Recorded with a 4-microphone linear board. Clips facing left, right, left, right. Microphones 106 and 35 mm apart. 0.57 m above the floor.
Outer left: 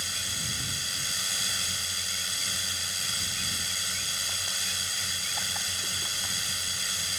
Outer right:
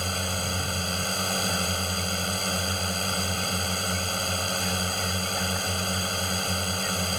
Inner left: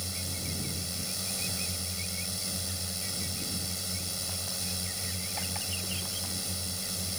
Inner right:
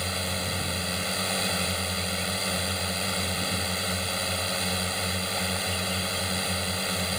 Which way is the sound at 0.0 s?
50° right (ahead or behind).